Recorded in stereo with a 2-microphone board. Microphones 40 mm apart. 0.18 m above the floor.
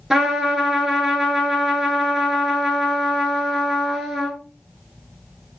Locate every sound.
0.1 s a trumpet: 10° right (ahead or behind), 0.7 m